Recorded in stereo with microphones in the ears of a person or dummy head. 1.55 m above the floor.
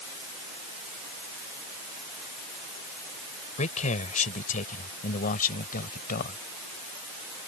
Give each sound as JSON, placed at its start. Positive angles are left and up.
{"t": 3.6, "sound": "a man speaking", "side_deg": 40}